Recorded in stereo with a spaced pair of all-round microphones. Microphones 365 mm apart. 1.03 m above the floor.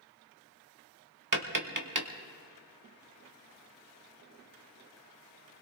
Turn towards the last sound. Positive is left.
turn(degrees=-60)  # may be behind; listen again after turning